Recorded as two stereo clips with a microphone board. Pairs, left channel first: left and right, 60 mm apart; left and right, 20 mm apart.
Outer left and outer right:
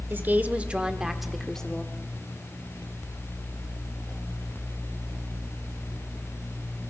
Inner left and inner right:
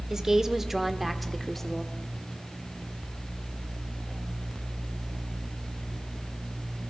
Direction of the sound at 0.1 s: 35° right (ahead or behind).